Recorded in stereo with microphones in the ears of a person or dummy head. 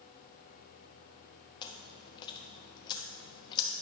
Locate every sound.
1.6 s chewing: 30° left (ahead or behind), 0.8 m